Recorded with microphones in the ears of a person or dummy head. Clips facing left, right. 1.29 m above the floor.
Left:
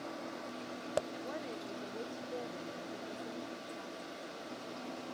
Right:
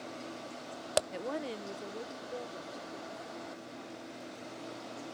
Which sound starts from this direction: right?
A woman speaking, at 1.1 s.